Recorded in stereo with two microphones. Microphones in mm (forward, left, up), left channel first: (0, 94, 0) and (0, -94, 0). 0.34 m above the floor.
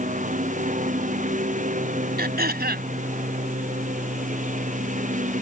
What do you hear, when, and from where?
0.0 s a lawn mower: 40° right (ahead or behind)
2.2 s throat clearing: 55° right (ahead or behind)